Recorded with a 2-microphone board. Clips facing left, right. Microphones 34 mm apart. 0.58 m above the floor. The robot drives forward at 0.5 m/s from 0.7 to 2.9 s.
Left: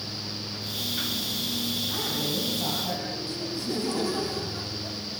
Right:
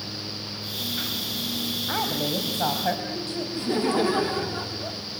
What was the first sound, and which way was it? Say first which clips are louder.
A woman speaking: right 3 dB; 70° right (ahead or behind).